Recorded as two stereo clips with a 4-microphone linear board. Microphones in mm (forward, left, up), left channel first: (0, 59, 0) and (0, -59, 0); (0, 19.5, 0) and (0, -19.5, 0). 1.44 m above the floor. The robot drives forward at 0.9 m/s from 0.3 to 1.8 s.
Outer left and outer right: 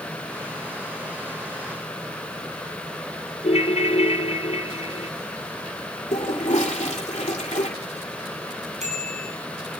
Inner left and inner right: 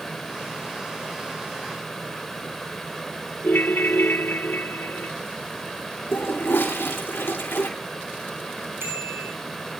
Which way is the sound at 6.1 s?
80° left.